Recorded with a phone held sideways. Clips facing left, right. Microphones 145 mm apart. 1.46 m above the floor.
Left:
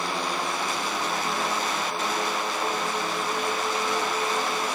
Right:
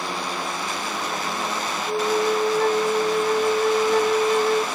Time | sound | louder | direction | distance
1.9 | a flute | right 7 dB | 70° right (ahead or behind) | 0.6 m